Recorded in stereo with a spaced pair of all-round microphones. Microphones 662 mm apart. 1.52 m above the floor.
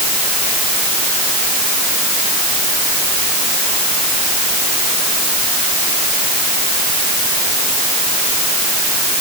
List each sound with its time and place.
Only background noise.